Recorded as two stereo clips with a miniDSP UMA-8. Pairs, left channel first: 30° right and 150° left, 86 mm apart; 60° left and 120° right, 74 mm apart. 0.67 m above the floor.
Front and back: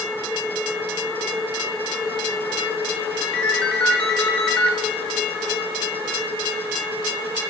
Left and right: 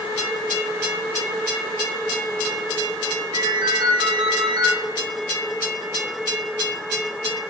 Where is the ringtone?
110° right, 1.0 m.